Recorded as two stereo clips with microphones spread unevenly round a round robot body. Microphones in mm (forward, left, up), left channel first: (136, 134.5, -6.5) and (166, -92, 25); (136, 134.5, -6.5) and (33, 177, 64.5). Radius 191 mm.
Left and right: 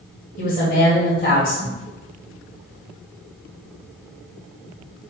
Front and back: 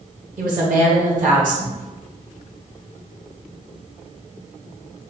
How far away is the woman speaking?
About 1.9 m.